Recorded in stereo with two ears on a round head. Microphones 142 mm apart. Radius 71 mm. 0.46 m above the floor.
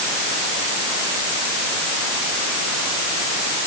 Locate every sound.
Only background noise.